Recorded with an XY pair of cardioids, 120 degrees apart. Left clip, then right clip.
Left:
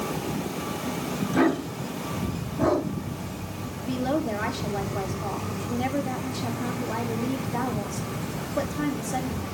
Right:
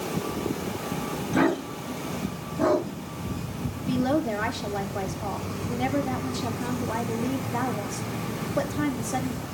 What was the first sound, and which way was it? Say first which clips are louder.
A dog barking: even; 5° right.